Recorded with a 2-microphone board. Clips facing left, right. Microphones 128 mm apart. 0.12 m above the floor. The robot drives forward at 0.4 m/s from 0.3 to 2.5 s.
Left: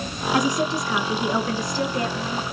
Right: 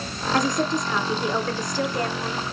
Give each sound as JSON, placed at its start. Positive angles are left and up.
{"t": 0.3, "sound": "a woman speaking", "side_deg": 10, "distance_m": 1.1}